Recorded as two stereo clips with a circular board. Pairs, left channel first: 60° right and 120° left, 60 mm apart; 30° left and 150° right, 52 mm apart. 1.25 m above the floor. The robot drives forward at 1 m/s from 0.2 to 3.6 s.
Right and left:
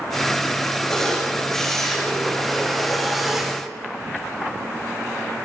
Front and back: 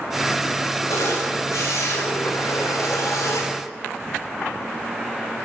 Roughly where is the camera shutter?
Ahead.